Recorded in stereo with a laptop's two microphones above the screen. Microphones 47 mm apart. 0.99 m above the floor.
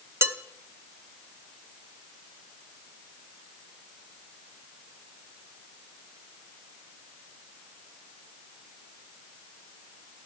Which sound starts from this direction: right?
Dishes clattering, at 0.2 s.